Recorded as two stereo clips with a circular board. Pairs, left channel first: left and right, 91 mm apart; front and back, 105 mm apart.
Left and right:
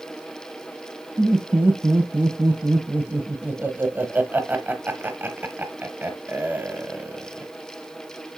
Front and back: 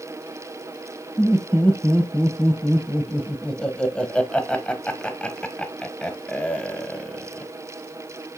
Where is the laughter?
65° right, 1.0 m.